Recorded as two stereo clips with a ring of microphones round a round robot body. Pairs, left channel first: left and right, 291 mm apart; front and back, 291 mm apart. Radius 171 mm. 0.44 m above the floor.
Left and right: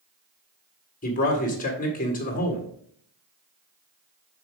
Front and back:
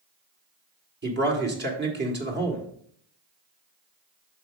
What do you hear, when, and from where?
1.0 s a man speaking: 140° left, 1.7 m